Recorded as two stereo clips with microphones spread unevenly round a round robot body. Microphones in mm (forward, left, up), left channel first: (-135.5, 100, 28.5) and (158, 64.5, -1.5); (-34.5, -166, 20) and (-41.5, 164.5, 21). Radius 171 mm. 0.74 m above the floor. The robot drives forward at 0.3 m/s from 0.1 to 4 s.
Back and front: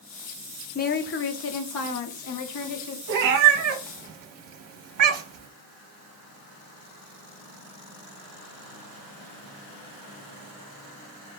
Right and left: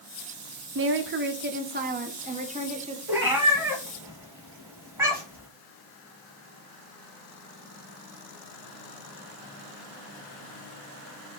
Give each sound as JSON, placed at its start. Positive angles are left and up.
{"t": 0.8, "sound": "a woman speaking", "azimuth_deg": 120, "distance_m": 0.5}
{"t": 3.1, "sound": "a cat meowing", "azimuth_deg": 5, "distance_m": 0.9}